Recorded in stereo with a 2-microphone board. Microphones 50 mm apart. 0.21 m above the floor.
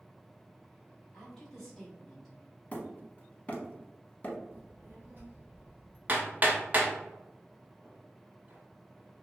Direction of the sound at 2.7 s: 25° left (ahead or behind).